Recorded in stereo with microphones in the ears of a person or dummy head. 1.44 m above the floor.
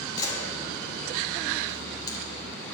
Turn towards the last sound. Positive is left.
turn(degrees=20)  # may be behind; listen again after turning